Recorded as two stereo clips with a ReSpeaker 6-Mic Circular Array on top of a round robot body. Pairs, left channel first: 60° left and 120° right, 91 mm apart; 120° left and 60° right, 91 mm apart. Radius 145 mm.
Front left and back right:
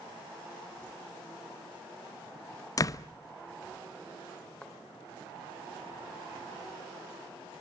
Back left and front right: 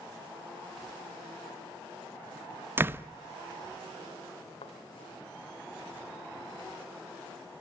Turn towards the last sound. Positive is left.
turn(degrees=140)